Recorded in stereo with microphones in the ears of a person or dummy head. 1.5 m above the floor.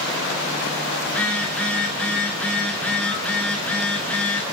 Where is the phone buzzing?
5° left (ahead or behind), 2.5 m.